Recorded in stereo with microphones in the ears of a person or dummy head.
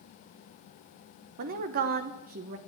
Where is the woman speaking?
45° right (ahead or behind), 1.1 m.